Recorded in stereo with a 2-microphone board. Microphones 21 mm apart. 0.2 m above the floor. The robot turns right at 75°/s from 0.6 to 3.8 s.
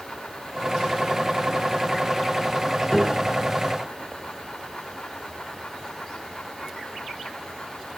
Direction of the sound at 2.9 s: 25° left.